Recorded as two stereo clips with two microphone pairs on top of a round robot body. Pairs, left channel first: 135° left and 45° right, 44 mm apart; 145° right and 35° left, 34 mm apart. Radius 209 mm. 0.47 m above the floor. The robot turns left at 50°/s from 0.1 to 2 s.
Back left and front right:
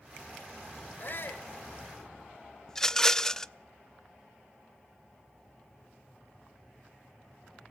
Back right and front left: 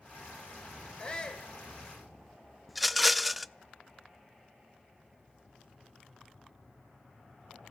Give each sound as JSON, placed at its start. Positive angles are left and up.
{"t": 1.0, "sound": "a shout", "azimuth_deg": 170, "distance_m": 2.5}
{"t": 2.7, "sound": "a rattle", "azimuth_deg": 180, "distance_m": 0.6}